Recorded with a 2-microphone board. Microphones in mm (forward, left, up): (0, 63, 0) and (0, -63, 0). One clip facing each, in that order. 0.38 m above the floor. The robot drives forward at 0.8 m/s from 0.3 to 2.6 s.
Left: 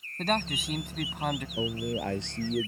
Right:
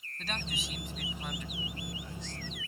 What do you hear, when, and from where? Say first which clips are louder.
0.2 s a man speaking: left 11 dB; 60° left (ahead or behind); by 1.5 s 65° left (ahead or behind)
1.6 s a man speaking: left 12 dB; 75° left (ahead or behind); by 2.7 s 80° left